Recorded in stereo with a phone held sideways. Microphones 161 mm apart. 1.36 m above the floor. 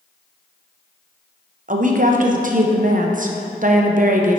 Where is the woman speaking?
55° right (ahead or behind), 0.7 m.